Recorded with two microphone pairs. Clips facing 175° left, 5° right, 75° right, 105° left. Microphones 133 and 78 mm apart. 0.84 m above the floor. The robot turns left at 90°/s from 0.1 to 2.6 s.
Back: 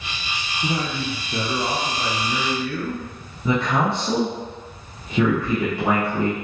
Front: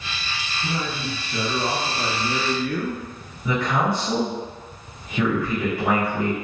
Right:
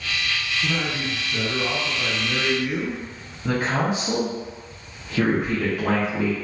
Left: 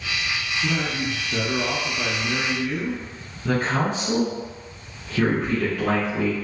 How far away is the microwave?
I don't hear a microwave.